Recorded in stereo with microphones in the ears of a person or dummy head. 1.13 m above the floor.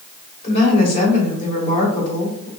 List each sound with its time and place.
0.4 s a woman speaking: 35° left (ahead or behind), 2.5 m